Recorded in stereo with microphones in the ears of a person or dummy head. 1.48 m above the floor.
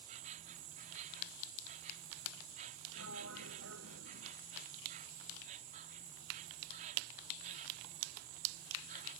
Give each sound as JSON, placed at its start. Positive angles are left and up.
{"t": 0.0, "sound": "an insect", "side_deg": -45}
{"t": 3.0, "sound": "a sliding door", "side_deg": -80}